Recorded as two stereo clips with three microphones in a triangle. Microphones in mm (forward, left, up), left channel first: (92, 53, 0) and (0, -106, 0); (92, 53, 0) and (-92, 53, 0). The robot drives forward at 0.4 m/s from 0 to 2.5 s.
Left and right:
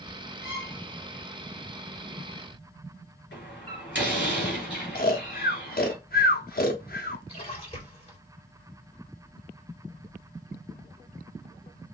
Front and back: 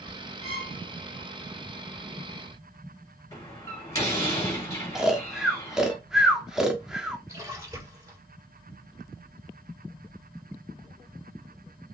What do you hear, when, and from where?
0.4 s a violin: 55° left, 3 m
3.3 s a door slam: 75° left, 2.5 m
5.0 s snoring: 95° left, 0.7 m
7.3 s a splash: 110° left, 3.5 m